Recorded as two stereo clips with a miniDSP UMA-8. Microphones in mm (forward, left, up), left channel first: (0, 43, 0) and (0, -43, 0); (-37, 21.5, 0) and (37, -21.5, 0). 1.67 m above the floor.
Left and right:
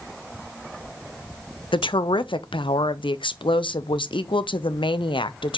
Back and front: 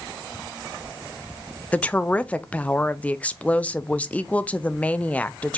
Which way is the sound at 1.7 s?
75° left.